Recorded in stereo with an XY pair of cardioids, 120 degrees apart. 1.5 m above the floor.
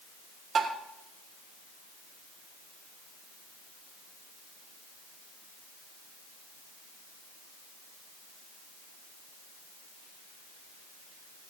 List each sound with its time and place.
0.6 s tapping: 55° right, 3.5 m